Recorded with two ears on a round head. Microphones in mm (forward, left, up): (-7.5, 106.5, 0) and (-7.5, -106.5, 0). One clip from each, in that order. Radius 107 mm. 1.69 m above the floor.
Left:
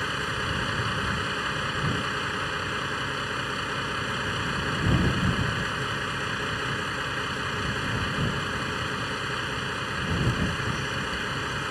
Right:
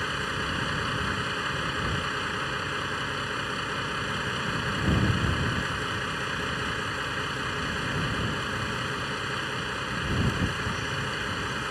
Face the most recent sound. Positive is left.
turn(degrees=0)  # may be behind; listen again after turning